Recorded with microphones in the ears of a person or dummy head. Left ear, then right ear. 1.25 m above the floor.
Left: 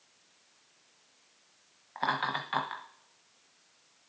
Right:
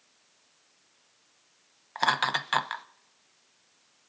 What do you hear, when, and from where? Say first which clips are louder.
1.9 s laughter: right 5 dB; 85° right, 0.8 m